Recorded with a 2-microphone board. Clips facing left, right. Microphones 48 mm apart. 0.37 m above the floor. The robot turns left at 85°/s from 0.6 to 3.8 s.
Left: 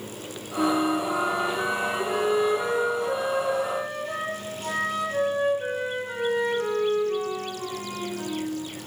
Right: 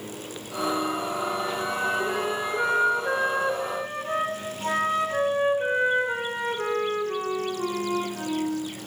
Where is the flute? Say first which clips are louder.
Left 4 dB; 125° left, 1.6 m; by 8.7 s 150° right, 1.6 m.